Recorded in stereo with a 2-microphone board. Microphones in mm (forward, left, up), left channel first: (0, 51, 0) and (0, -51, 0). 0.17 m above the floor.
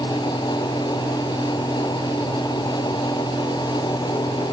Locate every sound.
Only background noise.